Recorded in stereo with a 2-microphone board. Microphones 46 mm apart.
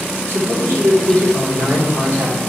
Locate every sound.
0.3 s a man speaking: 75° right (ahead or behind), 3 m